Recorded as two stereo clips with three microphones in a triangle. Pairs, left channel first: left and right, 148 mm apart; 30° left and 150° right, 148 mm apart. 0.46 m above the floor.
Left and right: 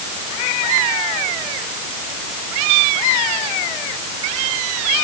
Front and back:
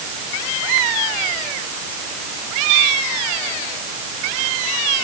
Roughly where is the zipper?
No zipper in this recording.